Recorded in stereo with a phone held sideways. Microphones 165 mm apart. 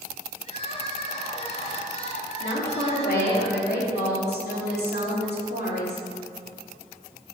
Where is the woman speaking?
80° left, 2.5 m.